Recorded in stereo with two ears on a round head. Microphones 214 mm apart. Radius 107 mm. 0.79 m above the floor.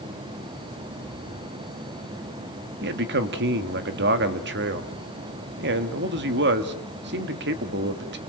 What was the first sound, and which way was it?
A man speaking, 50° right (ahead or behind).